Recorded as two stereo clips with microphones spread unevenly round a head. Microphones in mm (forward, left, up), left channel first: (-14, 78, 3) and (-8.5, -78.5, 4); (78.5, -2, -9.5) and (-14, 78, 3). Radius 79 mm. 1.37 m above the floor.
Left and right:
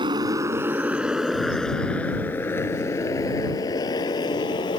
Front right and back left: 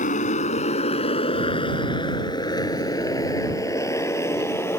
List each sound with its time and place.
0.0 s a motorcycle: 25° right; by 4.8 s 30° left